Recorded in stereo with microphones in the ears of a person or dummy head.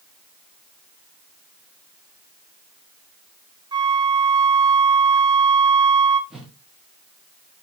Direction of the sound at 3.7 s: 25° right (ahead or behind).